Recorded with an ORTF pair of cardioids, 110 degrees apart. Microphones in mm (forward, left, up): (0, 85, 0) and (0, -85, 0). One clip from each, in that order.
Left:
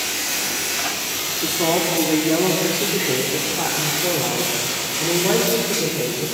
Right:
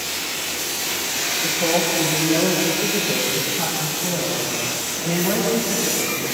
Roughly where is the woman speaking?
Ahead left.